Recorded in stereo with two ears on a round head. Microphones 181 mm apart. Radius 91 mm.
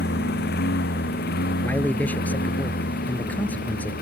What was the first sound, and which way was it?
A lawn mower, 55° left (ahead or behind).